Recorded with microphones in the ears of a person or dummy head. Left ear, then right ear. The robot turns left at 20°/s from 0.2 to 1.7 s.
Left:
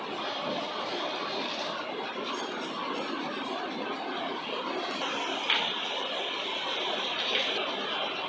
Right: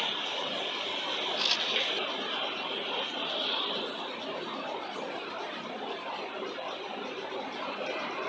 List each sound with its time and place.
1.4 s a camera shutter: 85° right, 5.5 m; by 1.6 s 80° right, 5.5 m